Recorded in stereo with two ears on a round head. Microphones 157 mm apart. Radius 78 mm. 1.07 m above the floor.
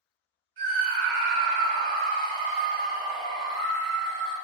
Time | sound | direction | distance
0.6 | a scream | 50° right (ahead or behind) | 1.5 m